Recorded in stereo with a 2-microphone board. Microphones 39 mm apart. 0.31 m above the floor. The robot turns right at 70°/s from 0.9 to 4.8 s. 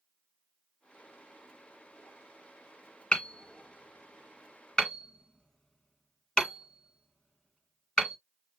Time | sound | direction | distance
3.1 | hammering | 20° left (ahead or behind) | 1.4 m